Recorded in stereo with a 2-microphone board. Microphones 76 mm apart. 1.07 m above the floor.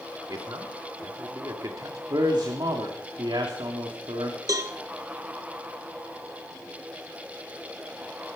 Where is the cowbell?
50° right (ahead or behind), 1.2 m.